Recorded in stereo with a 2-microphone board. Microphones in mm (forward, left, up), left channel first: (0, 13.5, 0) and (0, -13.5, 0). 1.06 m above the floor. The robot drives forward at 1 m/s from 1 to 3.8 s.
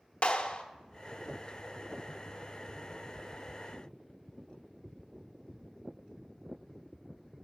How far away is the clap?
About 0.9 m.